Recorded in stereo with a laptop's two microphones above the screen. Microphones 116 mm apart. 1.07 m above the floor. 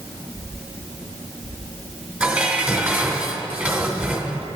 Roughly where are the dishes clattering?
Centre.